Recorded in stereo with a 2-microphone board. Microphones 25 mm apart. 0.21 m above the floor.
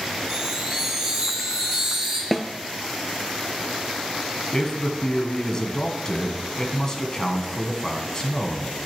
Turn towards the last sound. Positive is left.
turn(degrees=25)  # may be behind; listen again after turning